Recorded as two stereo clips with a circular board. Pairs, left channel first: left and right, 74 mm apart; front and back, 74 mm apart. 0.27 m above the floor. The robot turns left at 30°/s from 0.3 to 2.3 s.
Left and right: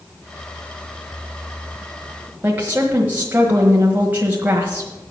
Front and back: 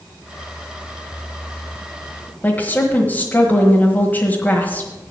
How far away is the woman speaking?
About 1.3 m.